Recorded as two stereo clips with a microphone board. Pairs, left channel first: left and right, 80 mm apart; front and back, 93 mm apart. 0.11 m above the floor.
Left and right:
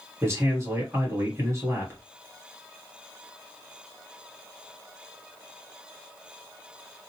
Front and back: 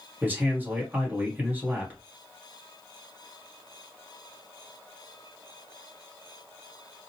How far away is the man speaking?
About 1.4 m.